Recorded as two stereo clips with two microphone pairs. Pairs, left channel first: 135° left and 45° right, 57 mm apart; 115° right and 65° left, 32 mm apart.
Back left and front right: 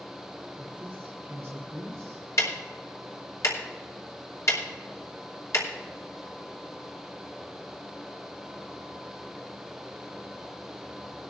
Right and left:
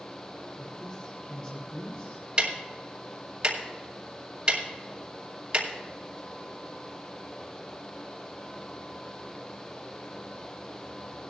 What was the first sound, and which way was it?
A woman speaking, 70° right.